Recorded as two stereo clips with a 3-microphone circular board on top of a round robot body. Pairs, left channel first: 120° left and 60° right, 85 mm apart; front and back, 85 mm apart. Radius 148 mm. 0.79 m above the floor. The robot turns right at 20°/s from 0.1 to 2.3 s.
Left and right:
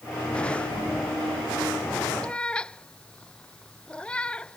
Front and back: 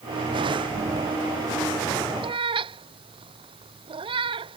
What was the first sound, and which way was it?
A cat meowing, 165° right.